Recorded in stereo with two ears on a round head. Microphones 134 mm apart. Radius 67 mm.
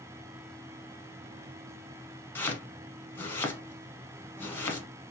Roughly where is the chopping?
Centre.